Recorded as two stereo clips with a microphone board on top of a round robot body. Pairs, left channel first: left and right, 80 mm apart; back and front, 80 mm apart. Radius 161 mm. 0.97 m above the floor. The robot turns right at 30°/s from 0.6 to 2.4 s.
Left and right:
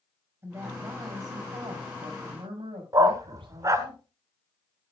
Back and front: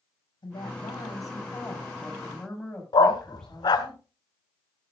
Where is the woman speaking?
150° right, 7 m; by 3.9 s 95° right, 7 m.